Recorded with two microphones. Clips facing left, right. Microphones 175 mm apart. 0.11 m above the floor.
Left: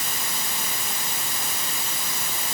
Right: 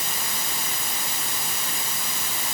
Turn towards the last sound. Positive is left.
No sound to turn to.